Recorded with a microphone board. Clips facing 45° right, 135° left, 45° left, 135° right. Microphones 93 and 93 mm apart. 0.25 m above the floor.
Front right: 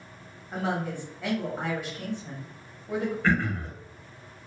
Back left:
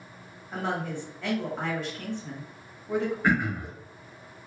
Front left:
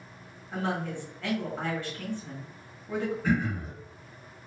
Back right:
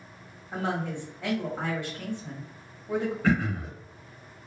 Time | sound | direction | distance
0.5 | a woman speaking | 110° right | 1.1 m
3.2 | throat clearing | 145° right | 0.5 m